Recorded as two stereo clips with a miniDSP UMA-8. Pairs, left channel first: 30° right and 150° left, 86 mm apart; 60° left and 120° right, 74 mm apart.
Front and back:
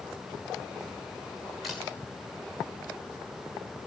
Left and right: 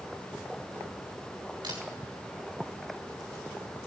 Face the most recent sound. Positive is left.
turn(degrees=-120)